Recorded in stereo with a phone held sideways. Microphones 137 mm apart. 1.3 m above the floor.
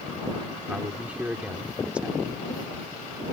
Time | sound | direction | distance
0.7 | a man speaking | 10° right (ahead or behind) | ?